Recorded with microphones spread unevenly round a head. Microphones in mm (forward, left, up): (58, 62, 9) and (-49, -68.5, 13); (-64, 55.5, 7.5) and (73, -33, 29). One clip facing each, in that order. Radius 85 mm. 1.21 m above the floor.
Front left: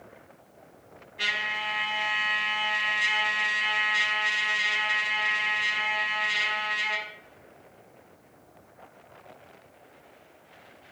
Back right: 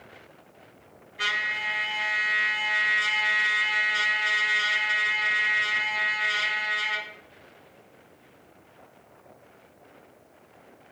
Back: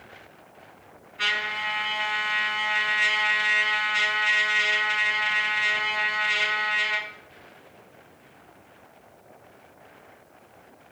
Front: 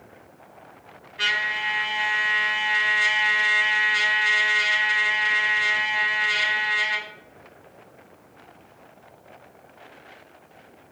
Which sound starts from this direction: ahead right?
A trumpet, at 1.2 s.